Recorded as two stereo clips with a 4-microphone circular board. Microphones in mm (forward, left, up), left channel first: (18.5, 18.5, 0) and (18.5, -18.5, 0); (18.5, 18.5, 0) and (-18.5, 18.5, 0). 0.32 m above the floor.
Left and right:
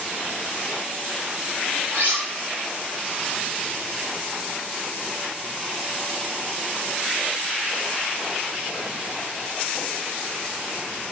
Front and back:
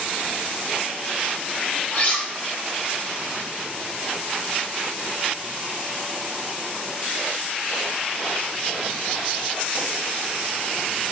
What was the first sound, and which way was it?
Cutlery clinking, 60° right.